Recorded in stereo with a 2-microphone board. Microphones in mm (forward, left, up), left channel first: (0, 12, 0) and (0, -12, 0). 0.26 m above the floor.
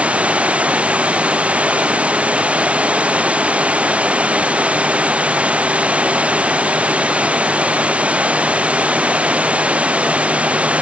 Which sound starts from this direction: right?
Running water, at 0.0 s.